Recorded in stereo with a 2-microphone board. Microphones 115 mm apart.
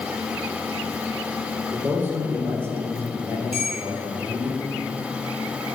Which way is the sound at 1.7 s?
20° right (ahead or behind).